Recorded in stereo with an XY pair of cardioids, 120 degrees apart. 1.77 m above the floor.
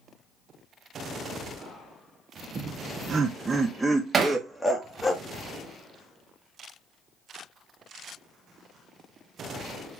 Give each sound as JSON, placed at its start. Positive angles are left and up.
{"t": 2.5, "sound": "laughter", "azimuth_deg": -45, "distance_m": 1.5}
{"t": 4.1, "sound": "hammering", "azimuth_deg": -35, "distance_m": 2.0}